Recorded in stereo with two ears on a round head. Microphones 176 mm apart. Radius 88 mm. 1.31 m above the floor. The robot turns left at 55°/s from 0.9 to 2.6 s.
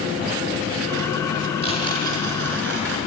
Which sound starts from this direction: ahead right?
Tearing paper, at 1.6 s.